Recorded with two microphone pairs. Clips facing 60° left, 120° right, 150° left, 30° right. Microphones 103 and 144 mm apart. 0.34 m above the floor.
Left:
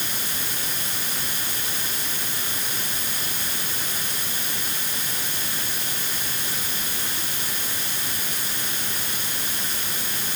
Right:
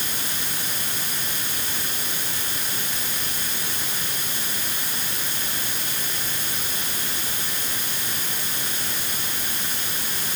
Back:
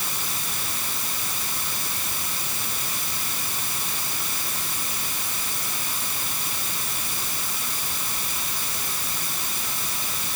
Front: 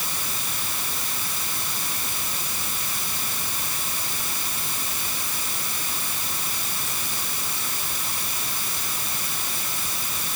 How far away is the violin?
No violin in this recording.